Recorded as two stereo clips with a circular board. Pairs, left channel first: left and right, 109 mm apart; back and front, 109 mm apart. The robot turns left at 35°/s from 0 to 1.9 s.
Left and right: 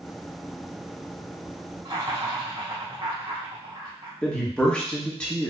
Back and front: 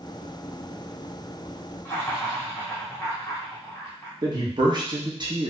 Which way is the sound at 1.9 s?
110° right.